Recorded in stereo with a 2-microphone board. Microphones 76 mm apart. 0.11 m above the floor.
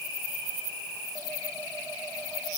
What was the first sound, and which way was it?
Only background noise.